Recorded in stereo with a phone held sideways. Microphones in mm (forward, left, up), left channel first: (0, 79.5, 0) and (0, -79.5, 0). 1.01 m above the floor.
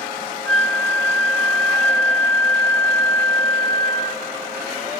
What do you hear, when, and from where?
0.5 s a flute: 5° left (ahead or behind), 2.5 m